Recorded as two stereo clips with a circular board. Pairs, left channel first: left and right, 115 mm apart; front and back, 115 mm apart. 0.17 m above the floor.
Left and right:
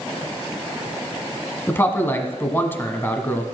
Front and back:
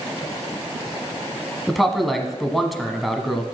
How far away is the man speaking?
About 1.1 m.